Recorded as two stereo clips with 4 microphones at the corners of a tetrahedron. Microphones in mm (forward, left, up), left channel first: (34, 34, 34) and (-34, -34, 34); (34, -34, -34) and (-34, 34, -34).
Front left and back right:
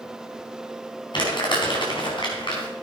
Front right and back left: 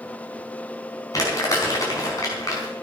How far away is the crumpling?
About 4.5 m.